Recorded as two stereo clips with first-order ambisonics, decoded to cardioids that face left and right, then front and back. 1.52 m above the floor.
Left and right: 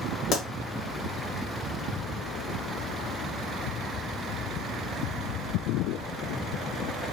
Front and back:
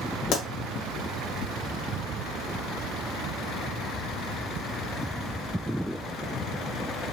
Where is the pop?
35° left, 0.8 m.